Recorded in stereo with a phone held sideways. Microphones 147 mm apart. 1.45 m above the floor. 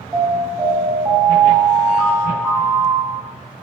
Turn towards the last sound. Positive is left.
turn(degrees=-20)  # may be behind; listen again after turning